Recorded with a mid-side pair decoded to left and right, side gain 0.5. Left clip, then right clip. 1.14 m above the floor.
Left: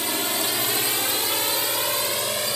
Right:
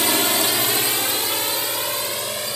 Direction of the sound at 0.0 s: 45° right.